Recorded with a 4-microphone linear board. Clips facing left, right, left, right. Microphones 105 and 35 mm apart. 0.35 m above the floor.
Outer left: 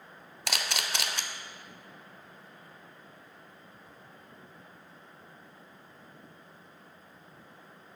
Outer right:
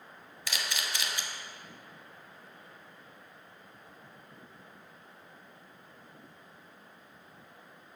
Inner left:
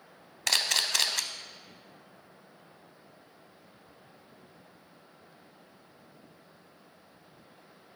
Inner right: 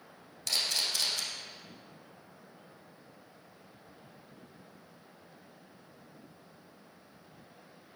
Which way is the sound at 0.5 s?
70° left (ahead or behind).